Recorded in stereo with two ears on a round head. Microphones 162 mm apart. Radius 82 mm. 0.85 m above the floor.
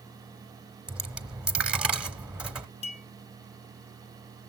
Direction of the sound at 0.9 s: 5° right (ahead or behind).